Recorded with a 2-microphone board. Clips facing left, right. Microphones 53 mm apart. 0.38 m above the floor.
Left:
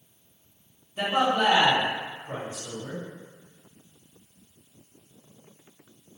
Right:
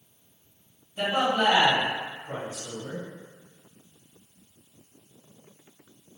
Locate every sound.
1.0 s a man speaking: 25° left (ahead or behind), 1.8 m